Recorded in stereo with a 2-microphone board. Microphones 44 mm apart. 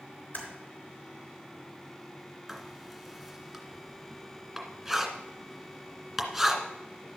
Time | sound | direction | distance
0.3 | typing on a keyboard | 55° left (ahead or behind) | 3.5 m
2.5 | writing | 5° right (ahead or behind) | 2 m